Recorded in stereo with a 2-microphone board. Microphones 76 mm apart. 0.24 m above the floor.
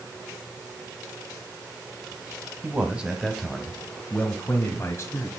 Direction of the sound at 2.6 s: 20° right (ahead or behind).